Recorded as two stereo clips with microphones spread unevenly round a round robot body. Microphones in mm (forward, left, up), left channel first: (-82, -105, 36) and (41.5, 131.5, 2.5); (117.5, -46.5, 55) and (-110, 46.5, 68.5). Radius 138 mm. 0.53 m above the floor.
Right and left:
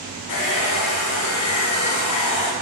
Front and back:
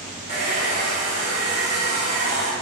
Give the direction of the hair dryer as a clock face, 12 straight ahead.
5 o'clock.